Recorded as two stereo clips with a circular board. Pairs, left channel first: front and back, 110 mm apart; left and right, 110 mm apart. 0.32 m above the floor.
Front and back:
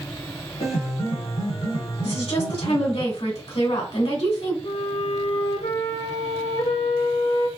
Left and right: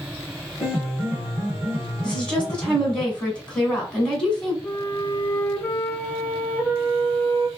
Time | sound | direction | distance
0.6 | a piano | 5° right | 2.5 m
2.0 | a woman speaking | 10° left | 2 m
4.6 | a flute | 20° left | 1.2 m